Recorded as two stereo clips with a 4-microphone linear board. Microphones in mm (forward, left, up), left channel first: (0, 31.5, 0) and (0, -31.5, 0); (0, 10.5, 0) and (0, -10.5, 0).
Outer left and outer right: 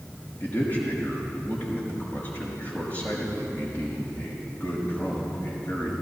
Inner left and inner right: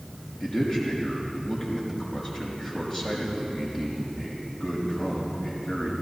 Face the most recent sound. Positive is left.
turn(degrees=30)  # may be behind; listen again after turning